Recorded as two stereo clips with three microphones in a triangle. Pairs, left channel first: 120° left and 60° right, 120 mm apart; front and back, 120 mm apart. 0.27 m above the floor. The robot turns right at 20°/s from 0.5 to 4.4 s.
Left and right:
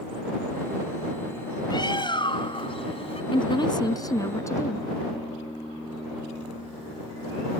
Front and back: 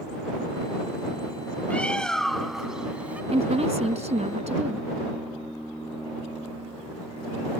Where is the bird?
75° left; by 3.2 s 105° left.